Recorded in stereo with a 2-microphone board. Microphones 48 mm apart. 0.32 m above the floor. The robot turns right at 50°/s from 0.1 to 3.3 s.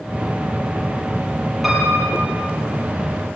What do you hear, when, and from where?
1.6 s a piano: 175° right, 5.5 m; by 2.3 s 145° right, 5.5 m